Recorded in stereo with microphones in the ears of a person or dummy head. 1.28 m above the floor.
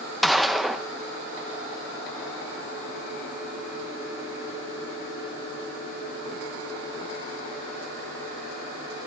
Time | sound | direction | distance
0.2 | a gunshot | centre (ahead or behind) | 1.0 m